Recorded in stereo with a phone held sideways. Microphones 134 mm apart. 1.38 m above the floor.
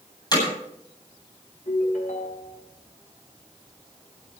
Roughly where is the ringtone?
Left.